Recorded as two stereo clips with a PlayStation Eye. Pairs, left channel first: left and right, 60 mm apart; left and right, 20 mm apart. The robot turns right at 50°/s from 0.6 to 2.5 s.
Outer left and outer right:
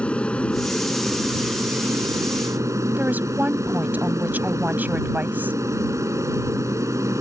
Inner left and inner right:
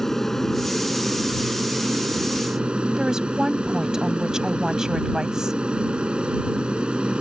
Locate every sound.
0.0 s an aircraft: 160° left; by 7.2 s 105° right
3.0 s a woman speaking: 30° right (ahead or behind)